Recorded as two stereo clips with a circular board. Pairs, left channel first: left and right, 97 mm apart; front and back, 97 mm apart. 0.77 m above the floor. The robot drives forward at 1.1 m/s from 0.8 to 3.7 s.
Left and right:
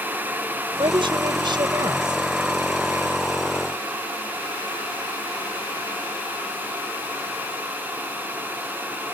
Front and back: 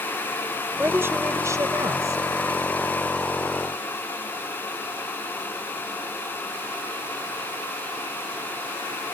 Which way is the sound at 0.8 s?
110° right.